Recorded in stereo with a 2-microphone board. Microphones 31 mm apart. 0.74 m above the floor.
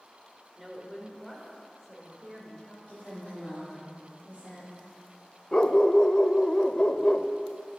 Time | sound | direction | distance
0.6 | a woman speaking | 5° right (ahead or behind) | 2.5 m
2.9 | a woman speaking | 50° left (ahead or behind) | 5.5 m
5.5 | a dog barking | 30° left (ahead or behind) | 0.5 m